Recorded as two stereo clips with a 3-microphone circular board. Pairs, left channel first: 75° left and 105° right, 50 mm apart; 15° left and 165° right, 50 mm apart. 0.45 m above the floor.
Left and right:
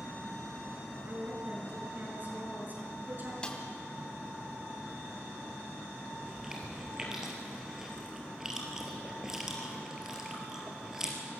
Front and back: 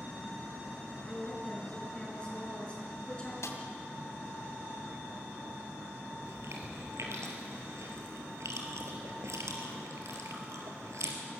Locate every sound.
1.1 s a woman speaking: 55° right, 6 m
3.4 s a snare drum: 5° left, 2.5 m
6.2 s chewing: 175° left, 4 m